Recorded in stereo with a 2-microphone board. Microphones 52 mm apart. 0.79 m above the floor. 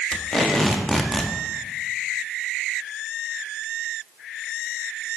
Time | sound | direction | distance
0.1 | tape being pulled | centre (ahead or behind) | 0.6 m